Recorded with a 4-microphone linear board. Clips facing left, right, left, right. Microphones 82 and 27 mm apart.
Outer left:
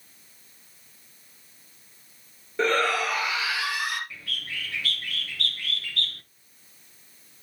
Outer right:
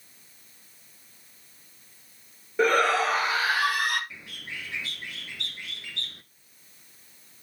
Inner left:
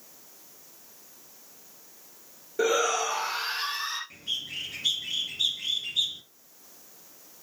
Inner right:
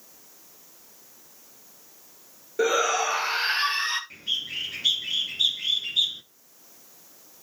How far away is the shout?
About 1.7 m.